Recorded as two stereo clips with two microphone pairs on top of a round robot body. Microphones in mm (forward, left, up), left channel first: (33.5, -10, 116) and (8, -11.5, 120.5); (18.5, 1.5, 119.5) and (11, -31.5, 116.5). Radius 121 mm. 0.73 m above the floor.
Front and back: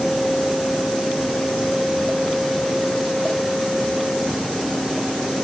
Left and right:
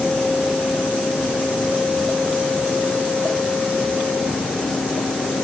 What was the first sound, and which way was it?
Only background noise.